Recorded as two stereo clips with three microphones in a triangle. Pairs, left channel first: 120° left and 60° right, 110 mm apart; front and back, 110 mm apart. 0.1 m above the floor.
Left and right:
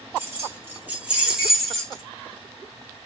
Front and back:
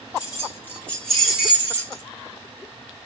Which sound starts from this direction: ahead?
Keys jangling, at 0.2 s.